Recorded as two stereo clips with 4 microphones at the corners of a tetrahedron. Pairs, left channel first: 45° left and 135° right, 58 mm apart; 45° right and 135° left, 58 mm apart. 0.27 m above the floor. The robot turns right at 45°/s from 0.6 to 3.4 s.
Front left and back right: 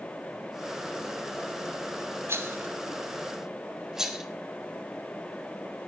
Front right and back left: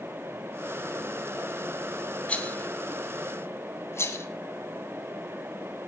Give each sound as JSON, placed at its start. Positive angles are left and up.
{"t": 2.3, "sound": "a rattle", "azimuth_deg": -105, "distance_m": 2.5}